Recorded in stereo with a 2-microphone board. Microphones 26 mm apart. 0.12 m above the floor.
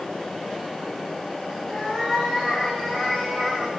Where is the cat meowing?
10° left (ahead or behind), 5 m; by 3.7 s 5° right (ahead or behind), 6 m.